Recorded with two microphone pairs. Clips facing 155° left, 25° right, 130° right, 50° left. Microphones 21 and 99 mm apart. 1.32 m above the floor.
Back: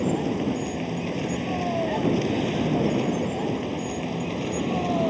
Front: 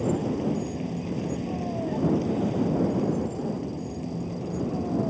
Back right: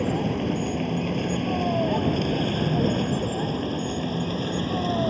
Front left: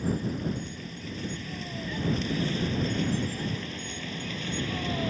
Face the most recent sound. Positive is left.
turn(degrees=175)